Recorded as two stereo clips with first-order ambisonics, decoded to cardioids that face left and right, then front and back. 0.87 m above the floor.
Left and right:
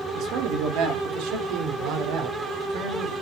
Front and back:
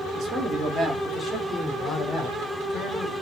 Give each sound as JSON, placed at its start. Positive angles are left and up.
{"t": 0.1, "sound": "a man speaking", "azimuth_deg": -125, "distance_m": 1.6}